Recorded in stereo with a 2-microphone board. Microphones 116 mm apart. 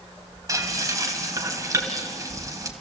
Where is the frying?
30° right (ahead or behind), 2.5 m.